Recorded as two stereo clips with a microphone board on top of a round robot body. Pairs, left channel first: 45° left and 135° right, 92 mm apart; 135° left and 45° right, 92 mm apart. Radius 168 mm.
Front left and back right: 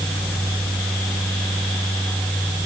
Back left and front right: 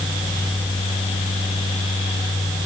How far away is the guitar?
I don't hear a guitar.